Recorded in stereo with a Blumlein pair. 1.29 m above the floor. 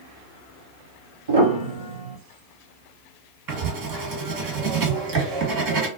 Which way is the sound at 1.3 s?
70° right.